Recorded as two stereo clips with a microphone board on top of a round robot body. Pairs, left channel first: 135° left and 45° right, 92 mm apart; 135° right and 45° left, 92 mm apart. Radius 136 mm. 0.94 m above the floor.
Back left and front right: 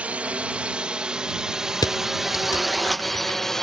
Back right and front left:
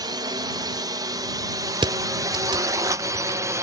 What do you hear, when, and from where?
0.0 s a drone: 25° left; by 3.6 s 50° left
1.8 s crushing: 85° left